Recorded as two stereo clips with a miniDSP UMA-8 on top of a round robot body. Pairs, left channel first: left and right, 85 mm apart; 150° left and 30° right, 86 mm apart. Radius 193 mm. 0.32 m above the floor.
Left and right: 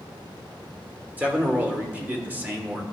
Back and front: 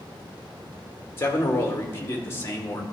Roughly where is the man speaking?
Behind right.